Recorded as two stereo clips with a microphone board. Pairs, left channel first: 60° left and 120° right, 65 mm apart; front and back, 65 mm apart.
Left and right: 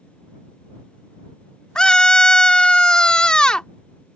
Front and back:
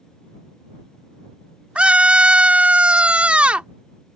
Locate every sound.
1.8 s a scream: 125° left